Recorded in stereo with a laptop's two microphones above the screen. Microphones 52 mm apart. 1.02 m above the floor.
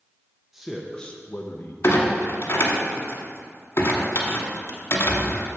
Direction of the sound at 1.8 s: 60° left (ahead or behind).